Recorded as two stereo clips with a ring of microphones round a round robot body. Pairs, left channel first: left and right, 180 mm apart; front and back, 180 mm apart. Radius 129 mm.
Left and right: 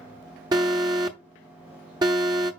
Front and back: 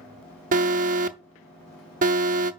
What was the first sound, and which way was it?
An alarm, 155° right.